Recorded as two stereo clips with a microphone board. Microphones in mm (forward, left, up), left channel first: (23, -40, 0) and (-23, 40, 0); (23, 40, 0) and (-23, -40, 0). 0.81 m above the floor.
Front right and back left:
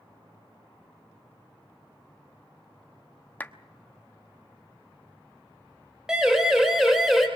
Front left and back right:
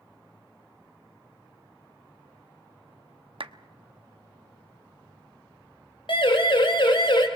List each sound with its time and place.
3.4 s a clap: 130° right, 1.0 m
6.1 s a siren: 35° left, 5 m; by 7.3 s 30° left, 4.5 m